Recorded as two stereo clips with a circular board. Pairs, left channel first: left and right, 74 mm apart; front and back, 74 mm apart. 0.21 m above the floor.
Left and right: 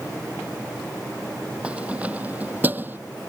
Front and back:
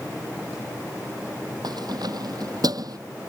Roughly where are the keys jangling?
Behind.